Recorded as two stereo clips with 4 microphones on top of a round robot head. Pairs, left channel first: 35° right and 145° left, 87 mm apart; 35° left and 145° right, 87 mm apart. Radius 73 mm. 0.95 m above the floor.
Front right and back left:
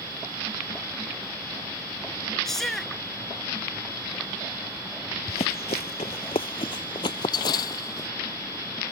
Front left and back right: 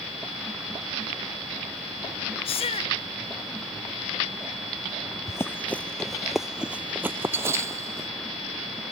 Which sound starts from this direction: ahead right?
Running footsteps, at 5.3 s.